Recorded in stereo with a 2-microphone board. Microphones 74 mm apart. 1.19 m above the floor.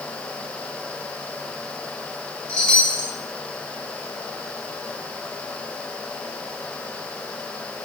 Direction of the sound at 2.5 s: 15° left (ahead or behind).